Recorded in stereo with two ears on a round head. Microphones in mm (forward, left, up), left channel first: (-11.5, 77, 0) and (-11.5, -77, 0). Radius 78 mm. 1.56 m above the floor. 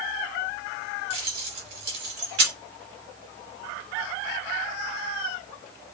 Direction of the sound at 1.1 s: 65° right (ahead or behind).